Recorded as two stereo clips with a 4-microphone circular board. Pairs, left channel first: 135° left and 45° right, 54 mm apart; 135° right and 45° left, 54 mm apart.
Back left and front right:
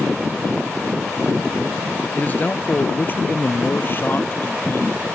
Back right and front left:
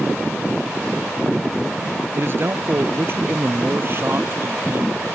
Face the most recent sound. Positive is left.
turn(degrees=90)